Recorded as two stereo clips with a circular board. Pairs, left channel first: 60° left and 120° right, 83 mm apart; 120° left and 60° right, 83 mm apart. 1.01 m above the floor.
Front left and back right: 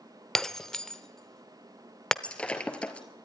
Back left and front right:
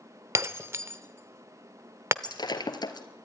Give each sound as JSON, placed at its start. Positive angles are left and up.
{"t": 0.3, "sound": "breaking glass", "azimuth_deg": -20, "distance_m": 0.8}
{"t": 2.2, "sound": "breaking glass", "azimuth_deg": 135, "distance_m": 1.8}